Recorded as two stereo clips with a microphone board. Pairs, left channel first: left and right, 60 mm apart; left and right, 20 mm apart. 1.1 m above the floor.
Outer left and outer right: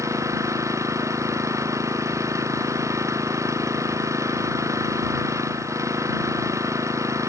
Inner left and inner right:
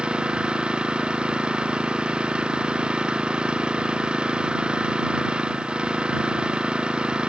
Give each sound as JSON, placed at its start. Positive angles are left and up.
{"t": 0.0, "sound": "an engine running", "side_deg": -55}